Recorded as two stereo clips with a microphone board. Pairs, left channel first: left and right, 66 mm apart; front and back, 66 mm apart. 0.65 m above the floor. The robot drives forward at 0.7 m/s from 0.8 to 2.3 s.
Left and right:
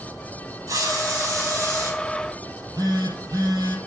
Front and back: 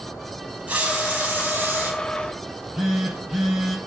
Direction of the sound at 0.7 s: 110° right.